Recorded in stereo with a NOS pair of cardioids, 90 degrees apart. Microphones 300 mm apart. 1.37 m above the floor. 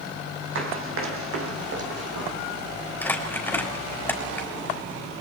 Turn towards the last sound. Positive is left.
turn(degrees=5)